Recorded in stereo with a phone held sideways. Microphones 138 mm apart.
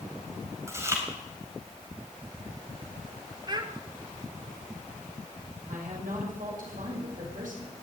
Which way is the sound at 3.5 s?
30° right (ahead or behind).